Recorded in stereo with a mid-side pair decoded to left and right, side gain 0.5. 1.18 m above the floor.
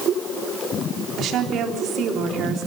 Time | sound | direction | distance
1.2 | a woman speaking | 60° right | 3.5 m